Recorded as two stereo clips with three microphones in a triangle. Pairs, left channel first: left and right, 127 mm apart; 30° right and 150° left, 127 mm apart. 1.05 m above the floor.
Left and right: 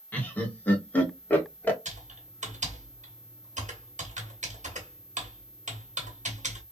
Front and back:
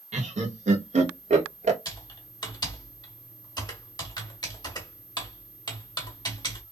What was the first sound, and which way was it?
Laughter, 165° left.